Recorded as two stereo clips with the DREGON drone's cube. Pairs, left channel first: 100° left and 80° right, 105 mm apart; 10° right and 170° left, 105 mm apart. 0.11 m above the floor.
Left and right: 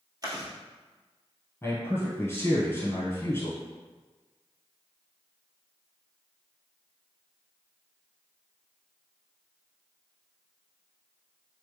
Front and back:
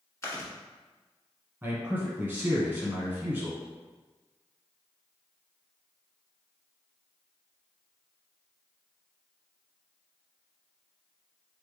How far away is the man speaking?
About 1.3 m.